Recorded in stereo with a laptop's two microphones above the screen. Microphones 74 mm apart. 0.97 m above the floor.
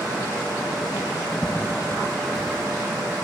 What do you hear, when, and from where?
1.4 s footsteps: 25° right (ahead or behind), 1.3 m; by 3.1 s 20° left (ahead or behind), 0.9 m